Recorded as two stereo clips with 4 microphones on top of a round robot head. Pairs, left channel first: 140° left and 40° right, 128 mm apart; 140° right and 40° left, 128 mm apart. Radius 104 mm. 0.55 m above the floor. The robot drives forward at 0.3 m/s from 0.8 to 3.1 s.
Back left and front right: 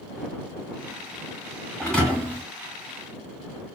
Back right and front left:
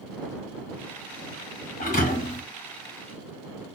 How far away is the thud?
About 1.4 m.